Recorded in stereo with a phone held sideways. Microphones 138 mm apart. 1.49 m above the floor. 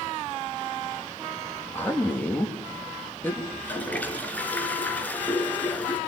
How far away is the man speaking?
About 3 m.